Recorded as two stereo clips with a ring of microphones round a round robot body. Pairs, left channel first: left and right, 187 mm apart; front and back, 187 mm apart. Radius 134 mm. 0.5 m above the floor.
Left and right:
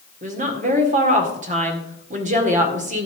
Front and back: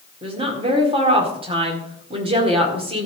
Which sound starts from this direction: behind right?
A woman speaking, at 0.2 s.